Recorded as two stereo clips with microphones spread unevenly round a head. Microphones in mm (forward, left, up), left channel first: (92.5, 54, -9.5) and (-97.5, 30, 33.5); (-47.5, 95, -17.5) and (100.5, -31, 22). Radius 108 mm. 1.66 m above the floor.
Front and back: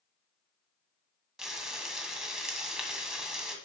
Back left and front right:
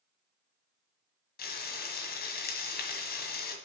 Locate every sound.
1.4 s frying: 120° left, 1.8 m